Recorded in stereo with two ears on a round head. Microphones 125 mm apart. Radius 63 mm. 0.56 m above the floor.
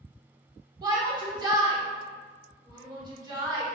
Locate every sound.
0.8 s a shout: 30° right (ahead or behind), 1.3 m